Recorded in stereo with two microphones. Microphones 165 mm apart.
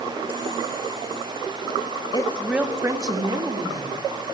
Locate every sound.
2.1 s a woman speaking: 25° left (ahead or behind), 0.7 m; by 4.0 s 35° right (ahead or behind), 2.5 m